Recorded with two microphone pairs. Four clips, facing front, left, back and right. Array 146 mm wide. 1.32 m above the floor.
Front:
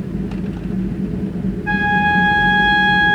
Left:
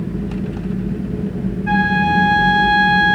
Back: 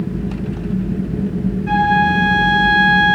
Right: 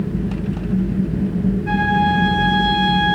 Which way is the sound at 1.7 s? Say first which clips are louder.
Left 3 dB, back 2 dB; straight ahead.